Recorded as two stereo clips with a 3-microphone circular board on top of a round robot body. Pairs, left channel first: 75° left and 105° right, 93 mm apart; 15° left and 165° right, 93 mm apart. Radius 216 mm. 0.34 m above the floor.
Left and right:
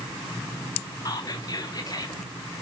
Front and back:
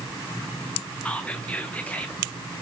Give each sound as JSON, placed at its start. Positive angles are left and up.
{"t": 1.1, "sound": "whispering", "azimuth_deg": 85, "distance_m": 1.1}